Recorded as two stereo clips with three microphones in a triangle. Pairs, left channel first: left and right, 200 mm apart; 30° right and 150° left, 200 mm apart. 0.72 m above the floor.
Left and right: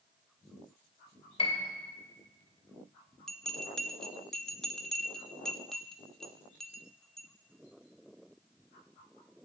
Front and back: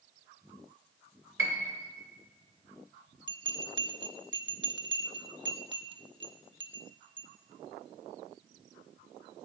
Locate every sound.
1.4 s a piano: 150° left, 2 m
3.3 s a bell: 175° left, 0.9 m